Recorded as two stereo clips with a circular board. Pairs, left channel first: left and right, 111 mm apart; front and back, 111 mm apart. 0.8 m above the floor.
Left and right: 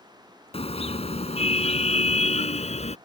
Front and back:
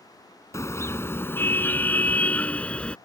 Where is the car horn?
65° left; by 3.0 s 80° left.